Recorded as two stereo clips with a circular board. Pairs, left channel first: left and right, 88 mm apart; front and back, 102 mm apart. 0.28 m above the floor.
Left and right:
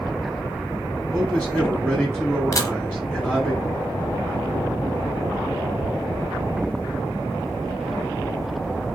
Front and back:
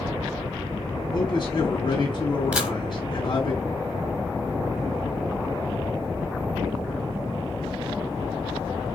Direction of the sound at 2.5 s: 110° left.